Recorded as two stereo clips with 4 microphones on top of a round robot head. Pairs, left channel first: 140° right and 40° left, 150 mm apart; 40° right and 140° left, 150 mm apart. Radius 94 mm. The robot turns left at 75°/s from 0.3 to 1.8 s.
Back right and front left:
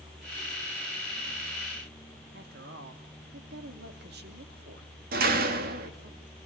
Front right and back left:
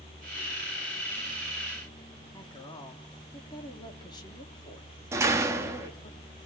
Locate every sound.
2.3 s a woman speaking: 25° left, 3 m
5.1 s a door slam: 65° left, 1.8 m